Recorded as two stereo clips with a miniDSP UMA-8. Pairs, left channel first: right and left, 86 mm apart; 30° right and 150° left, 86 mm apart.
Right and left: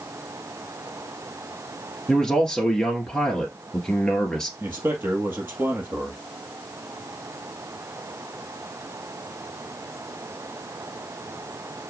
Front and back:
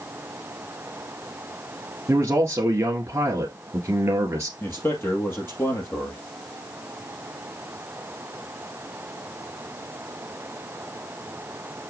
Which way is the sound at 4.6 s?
25° left.